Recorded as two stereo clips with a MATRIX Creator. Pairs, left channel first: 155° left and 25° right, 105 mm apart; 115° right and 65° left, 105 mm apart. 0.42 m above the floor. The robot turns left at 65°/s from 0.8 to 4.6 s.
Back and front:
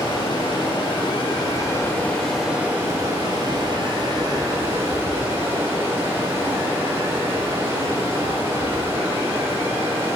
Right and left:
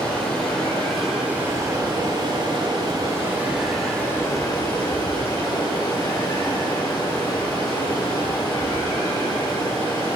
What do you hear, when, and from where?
0.0 s running water: 170° left, 0.9 m; by 10.2 s 80° right, 0.9 m